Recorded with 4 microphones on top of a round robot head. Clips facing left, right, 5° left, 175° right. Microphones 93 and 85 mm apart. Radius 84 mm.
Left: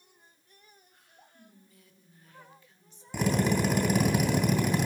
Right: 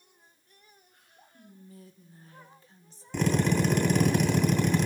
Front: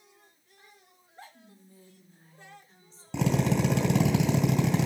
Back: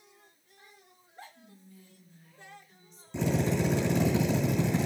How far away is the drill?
About 3 m.